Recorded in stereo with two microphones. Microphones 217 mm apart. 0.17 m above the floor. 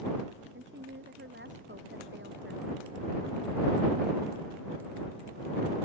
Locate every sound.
0.5 s a woman speaking: 60° right (ahead or behind); by 2.7 s 55° right (ahead or behind)